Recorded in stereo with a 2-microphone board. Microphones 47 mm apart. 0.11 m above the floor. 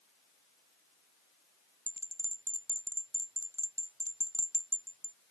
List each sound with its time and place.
1.9 s a bell: 70° right (ahead or behind)